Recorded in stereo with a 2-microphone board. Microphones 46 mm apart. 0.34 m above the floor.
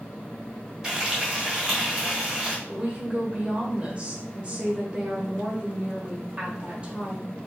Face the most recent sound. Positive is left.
turn(degrees=-25)  # may be behind; listen again after turning